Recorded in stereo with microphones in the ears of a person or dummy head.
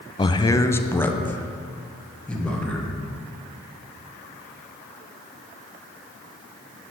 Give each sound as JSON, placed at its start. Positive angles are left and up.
{"t": 0.2, "sound": "a man speaking", "side_deg": 20, "distance_m": 0.6}